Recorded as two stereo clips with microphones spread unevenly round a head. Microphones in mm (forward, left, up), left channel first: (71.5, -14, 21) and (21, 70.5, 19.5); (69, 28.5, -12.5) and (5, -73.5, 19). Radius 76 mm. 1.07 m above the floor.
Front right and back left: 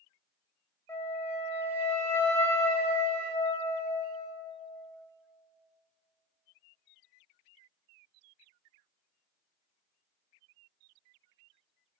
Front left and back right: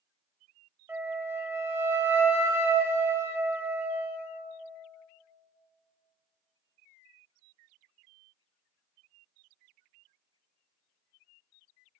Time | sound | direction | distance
0.9 | a flute | 105° right | 0.9 m